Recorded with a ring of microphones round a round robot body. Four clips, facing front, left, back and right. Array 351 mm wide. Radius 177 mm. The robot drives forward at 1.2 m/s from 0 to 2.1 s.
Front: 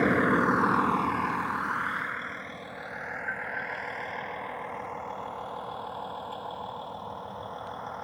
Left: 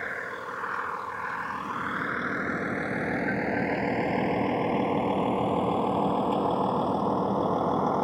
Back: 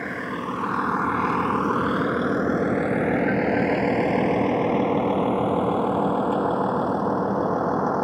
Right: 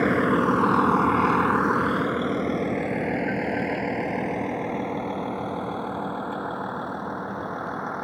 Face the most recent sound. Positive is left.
turn(degrees=160)